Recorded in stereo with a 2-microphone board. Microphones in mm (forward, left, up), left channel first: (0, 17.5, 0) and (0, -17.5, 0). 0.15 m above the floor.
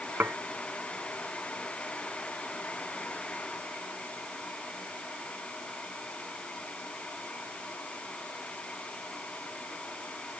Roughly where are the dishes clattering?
Right.